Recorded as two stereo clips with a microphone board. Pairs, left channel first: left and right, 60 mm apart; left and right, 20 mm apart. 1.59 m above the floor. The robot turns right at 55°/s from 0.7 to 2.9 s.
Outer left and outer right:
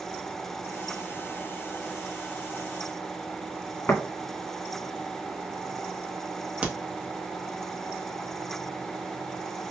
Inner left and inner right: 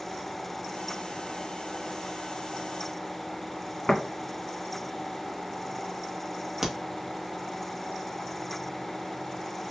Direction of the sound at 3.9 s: 55° left (ahead or behind).